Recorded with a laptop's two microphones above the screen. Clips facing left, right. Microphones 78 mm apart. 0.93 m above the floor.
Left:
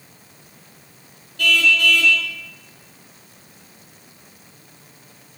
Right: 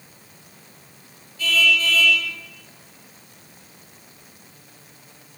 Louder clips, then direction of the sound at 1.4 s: Left 3 dB; 65° left (ahead or behind).